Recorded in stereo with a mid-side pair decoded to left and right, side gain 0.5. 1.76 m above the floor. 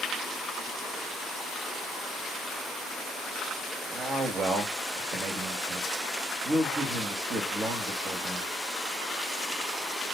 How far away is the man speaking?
About 1.1 m.